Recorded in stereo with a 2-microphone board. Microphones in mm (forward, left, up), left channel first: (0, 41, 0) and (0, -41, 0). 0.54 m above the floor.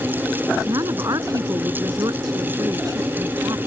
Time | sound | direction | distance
0.7 | a woman speaking | 50° right (ahead or behind) | ?